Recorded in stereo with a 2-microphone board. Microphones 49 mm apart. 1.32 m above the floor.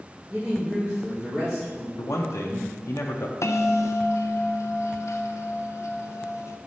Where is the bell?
75° left (ahead or behind), 0.5 m.